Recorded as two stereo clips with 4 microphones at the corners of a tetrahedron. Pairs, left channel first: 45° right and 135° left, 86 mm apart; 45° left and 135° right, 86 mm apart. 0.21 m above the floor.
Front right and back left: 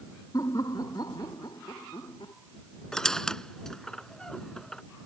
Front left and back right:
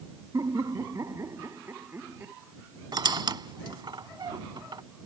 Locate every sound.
0.3 s laughter: 90° right; by 2.3 s 70° right
2.9 s a squeak: 125° right